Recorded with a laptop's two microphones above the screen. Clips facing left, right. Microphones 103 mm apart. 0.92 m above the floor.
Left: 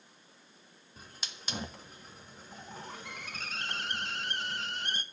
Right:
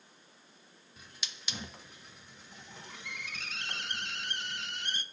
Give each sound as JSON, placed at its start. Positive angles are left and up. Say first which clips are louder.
{"t": 1.0, "sound": "a hiss", "louder": "left 2 dB", "side_deg": 40, "distance_m": 1.3}